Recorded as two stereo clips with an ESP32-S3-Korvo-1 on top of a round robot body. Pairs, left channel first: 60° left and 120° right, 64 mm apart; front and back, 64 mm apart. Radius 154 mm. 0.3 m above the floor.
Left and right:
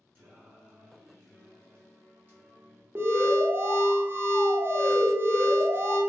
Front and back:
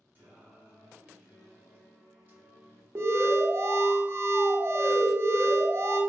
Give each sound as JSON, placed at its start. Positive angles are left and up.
{"t": 0.1, "sound": "singing", "azimuth_deg": -145, "distance_m": 1.8}
{"t": 3.0, "sound": "an alarm", "azimuth_deg": -155, "distance_m": 0.8}